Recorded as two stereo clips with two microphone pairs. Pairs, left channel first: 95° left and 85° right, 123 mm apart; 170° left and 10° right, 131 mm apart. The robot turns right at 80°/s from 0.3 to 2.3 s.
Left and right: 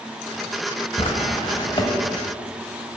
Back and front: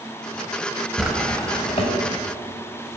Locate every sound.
1.0 s a drawer: 70° left, 1.0 m; by 1.9 s 140° left, 1.0 m